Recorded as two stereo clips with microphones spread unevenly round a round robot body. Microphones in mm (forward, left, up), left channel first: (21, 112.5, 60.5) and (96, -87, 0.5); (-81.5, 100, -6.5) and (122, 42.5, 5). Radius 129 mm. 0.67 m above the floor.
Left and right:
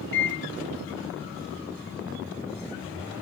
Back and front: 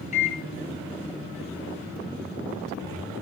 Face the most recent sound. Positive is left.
turn(degrees=140)